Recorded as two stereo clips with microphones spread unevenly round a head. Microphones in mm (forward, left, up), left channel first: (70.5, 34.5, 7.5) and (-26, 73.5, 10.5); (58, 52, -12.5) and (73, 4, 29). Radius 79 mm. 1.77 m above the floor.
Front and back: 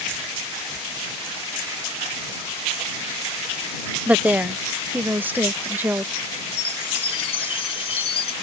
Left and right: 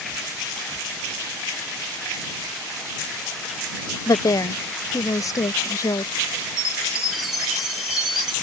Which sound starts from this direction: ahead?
A chime, at 6.6 s.